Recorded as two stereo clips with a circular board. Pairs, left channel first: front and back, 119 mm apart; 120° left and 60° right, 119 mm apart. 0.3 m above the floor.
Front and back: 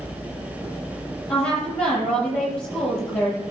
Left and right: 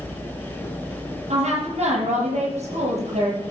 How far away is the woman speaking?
About 5.5 m.